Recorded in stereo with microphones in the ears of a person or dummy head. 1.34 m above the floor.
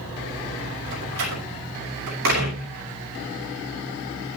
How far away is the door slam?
About 5.5 m.